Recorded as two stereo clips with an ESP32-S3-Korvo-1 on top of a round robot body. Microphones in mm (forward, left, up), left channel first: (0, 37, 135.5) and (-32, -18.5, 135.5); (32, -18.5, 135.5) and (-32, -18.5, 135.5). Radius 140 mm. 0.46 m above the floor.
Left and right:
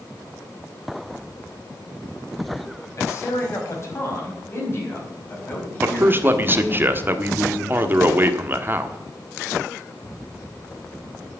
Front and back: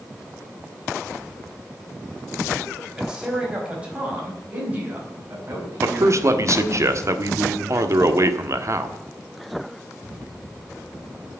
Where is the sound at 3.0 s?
105° left, 4 m; by 6.8 s 125° left, 5.5 m.